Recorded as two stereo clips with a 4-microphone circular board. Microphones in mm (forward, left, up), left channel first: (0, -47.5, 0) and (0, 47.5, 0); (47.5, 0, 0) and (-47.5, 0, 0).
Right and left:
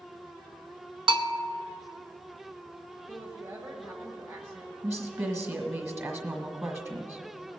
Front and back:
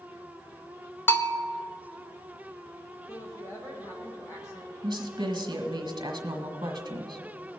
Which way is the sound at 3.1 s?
40° left.